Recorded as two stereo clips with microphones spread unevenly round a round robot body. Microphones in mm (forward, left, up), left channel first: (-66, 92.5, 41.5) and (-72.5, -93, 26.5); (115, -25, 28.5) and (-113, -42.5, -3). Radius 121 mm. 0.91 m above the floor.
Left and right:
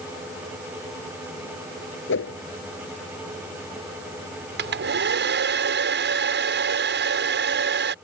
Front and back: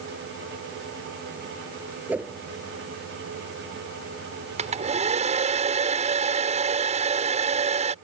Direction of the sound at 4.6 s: 115° right.